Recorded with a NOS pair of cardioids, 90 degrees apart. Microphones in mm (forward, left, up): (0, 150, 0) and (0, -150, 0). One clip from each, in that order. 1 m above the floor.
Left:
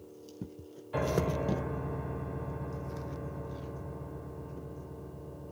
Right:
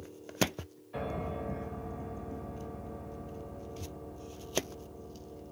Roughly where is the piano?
Ahead left.